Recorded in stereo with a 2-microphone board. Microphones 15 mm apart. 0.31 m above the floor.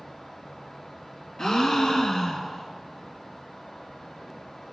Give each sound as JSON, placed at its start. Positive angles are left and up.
{"t": 1.4, "sound": "a gasp", "side_deg": 35, "distance_m": 0.9}